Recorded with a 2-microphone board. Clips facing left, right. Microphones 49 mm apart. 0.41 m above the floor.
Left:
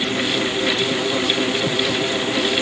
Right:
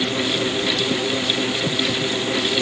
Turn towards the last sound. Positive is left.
No sound to turn to.